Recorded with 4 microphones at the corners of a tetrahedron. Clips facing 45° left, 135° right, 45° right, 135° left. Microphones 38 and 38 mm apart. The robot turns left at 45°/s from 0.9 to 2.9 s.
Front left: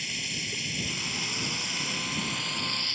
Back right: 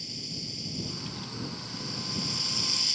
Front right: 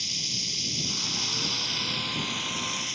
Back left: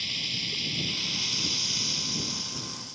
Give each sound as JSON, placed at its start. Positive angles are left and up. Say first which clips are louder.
{"t": 0.0, "sound": "running water", "louder": "front left 8 dB, back left 2 dB", "azimuth_deg": 70}